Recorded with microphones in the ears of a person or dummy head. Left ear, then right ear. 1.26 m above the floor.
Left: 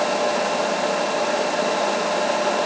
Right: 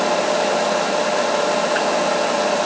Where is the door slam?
I don't hear a door slam.